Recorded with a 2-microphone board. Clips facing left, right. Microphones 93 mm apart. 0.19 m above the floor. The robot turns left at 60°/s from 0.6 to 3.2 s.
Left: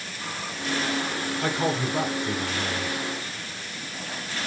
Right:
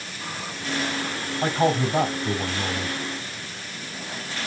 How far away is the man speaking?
About 4.5 m.